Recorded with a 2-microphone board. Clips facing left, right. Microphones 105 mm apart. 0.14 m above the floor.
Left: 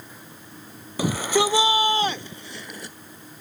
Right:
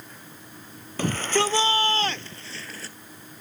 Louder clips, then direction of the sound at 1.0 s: Left 2 dB; 10° left (ahead or behind).